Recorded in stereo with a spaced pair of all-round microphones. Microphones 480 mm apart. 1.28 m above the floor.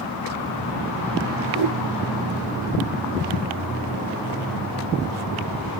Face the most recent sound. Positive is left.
turn(degrees=-10)  # may be behind; listen again after turning